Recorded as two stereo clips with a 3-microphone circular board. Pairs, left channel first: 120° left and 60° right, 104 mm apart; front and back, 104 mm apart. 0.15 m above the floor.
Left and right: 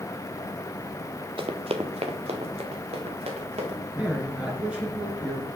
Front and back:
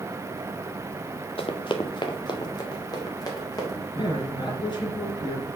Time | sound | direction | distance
1.4 | running footsteps | 25° right | 0.9 m
4.0 | a man speaking | 15° left | 2.5 m